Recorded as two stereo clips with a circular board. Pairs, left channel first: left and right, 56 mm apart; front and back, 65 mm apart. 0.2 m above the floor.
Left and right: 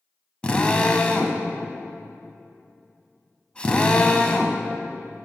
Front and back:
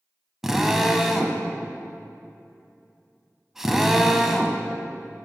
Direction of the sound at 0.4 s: 105° left.